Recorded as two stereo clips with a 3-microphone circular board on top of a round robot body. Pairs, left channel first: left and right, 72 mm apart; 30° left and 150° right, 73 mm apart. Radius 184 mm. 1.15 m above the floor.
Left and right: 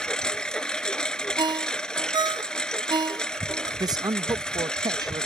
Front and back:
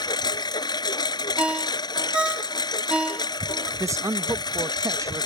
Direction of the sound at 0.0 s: 10° left.